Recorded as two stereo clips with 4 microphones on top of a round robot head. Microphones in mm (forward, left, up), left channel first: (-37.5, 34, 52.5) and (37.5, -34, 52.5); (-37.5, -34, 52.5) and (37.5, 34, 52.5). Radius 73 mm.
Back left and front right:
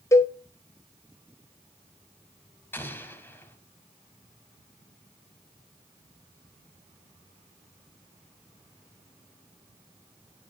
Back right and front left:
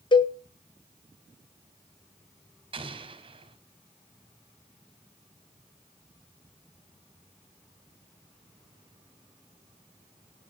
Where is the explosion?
70° left, 2.5 m.